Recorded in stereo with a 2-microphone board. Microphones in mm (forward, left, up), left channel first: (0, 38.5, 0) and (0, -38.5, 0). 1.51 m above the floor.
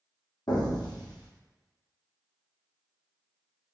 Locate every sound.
0.5 s an explosion: 65° left (ahead or behind), 0.6 m